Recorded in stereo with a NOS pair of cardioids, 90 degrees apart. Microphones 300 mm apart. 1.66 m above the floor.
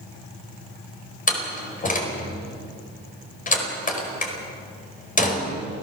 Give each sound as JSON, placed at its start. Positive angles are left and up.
{"t": 1.3, "sound": "a door slam", "azimuth_deg": 25, "distance_m": 4.5}